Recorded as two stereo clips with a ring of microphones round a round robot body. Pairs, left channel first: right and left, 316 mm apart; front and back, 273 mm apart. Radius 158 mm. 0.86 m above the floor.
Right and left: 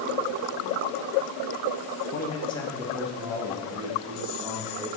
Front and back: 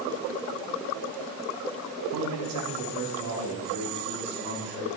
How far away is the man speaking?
About 1.0 m.